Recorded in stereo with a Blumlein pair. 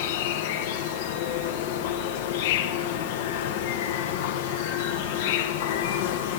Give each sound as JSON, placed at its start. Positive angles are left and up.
{"t": 0.0, "sound": "an insect", "azimuth_deg": 50, "distance_m": 0.7}